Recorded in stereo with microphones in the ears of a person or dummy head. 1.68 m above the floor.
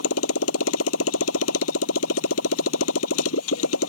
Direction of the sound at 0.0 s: 85° left.